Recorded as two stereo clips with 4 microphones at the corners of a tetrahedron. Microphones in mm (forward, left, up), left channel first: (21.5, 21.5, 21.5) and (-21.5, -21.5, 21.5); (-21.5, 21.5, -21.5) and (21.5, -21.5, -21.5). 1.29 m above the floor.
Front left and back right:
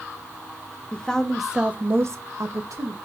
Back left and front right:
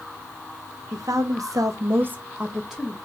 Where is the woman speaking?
25° right, 1.0 m; by 3.0 s 135° right, 1.1 m.